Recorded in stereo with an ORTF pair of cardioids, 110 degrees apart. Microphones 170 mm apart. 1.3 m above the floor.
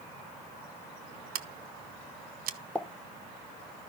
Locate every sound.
1.4 s scissors: 60° right, 0.8 m
2.8 s a pop: 5° left, 0.9 m